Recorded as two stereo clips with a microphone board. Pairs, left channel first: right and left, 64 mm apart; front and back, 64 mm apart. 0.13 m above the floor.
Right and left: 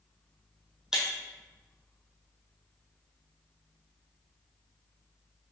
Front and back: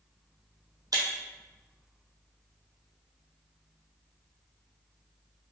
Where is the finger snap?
I don't hear a finger snap.